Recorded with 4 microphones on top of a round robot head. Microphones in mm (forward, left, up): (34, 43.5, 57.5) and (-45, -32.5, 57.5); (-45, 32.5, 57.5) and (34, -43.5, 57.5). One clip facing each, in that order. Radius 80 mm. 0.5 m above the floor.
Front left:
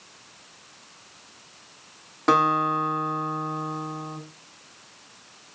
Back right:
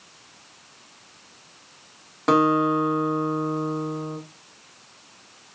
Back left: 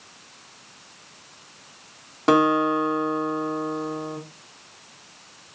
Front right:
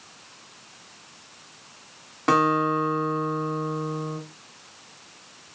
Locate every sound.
2.3 s a guitar: 140° left, 1.2 m